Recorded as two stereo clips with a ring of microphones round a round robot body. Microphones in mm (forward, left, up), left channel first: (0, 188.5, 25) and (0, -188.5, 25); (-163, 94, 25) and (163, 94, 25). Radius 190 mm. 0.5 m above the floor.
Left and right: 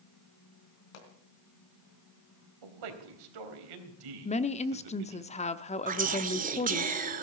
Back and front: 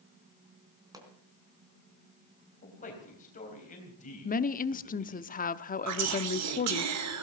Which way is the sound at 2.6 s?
110° right.